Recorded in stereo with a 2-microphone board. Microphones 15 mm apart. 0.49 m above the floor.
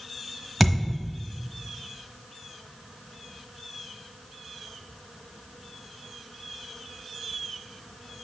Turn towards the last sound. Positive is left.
turn(degrees=-10)  # may be behind; listen again after turning